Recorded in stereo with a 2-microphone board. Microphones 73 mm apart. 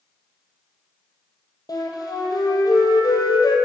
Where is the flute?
60° left (ahead or behind), 1.7 m.